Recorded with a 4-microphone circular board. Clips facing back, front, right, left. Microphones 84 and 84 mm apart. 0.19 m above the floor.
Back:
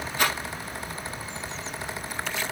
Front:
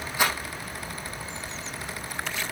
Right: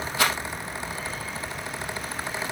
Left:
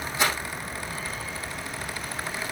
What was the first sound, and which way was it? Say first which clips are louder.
A rattle: front 1 dB, right 1 dB; 80° right.